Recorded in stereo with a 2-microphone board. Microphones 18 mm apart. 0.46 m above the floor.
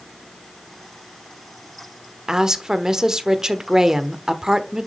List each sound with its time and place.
2.3 s a woman speaking: 30° right (ahead or behind), 1.2 m